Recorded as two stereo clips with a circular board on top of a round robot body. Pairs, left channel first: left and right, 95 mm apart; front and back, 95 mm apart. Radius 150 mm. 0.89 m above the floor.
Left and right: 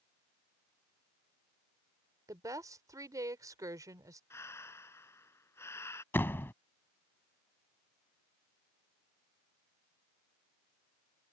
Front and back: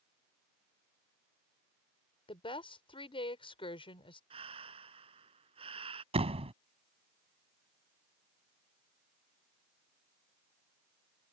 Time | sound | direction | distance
2.3 | a woman speaking | 30° right | ?
4.3 | breathing | 155° left | ?
6.1 | a door slam | 160° left | ?